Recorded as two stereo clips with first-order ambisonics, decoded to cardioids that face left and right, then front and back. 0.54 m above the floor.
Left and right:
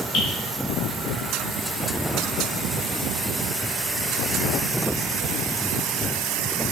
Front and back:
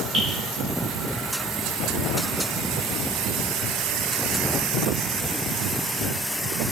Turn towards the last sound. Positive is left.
turn(degrees=130)